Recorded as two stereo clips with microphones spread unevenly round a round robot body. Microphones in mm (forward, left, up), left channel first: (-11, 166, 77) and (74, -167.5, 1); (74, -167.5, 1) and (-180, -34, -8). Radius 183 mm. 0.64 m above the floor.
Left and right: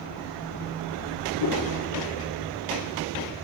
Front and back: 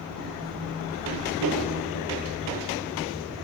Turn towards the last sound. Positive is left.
turn(degrees=145)